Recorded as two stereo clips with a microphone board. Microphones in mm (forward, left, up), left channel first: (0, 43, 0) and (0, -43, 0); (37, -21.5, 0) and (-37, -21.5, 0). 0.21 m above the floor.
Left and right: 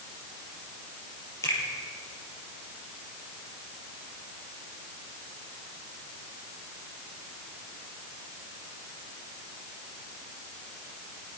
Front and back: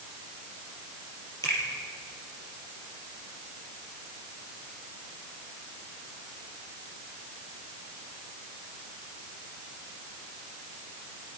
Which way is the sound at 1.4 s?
35° left.